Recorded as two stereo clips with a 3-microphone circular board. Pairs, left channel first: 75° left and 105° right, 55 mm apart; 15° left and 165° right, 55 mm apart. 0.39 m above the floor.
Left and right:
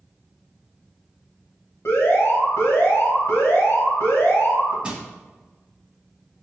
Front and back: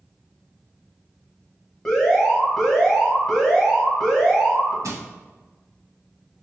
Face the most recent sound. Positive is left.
turn(degrees=-175)